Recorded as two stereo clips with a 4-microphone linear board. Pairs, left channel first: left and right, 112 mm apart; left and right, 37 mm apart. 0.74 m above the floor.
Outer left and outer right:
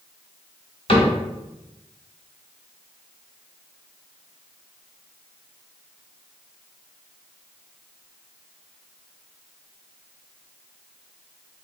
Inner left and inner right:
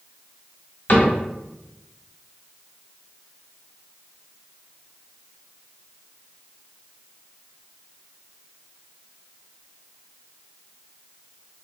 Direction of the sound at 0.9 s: 45° left (ahead or behind).